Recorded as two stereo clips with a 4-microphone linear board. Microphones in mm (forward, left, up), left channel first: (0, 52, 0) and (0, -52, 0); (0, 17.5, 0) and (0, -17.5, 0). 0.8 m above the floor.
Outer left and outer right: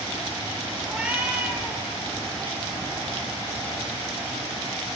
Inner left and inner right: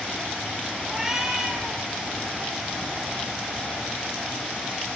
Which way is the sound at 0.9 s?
10° right (ahead or behind).